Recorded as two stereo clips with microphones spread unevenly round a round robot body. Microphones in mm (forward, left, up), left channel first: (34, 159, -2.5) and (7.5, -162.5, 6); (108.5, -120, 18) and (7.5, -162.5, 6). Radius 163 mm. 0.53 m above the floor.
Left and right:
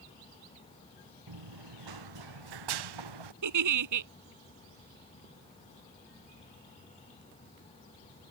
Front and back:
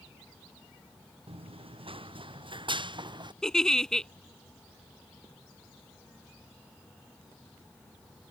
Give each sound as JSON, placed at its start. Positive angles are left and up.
{"t": 1.3, "sound": "running footsteps", "azimuth_deg": -125}
{"t": 3.4, "sound": "a giggle", "azimuth_deg": -60}